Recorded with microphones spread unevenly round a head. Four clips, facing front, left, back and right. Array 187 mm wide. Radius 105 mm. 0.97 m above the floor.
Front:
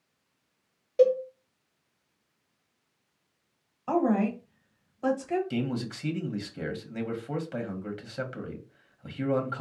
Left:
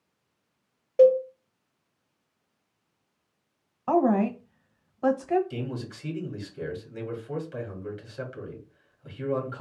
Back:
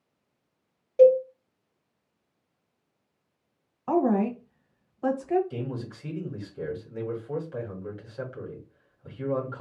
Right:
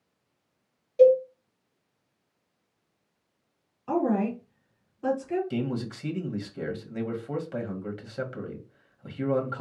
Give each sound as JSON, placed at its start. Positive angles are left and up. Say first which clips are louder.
{"t": 1.0, "sound": "a cowbell", "louder": "even, back 5 dB", "azimuth_deg": 75, "distance_m": 1.1}
{"t": 3.9, "sound": "a woman speaking", "louder": "left 3 dB, back 2 dB", "azimuth_deg": 85, "distance_m": 1.4}
{"t": 5.5, "sound": "a man speaking", "louder": "right 4 dB, front 4 dB", "azimuth_deg": -25, "distance_m": 1.6}